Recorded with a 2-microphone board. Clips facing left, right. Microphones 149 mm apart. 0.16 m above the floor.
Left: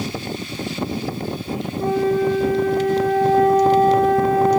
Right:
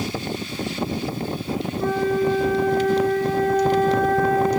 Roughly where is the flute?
Left.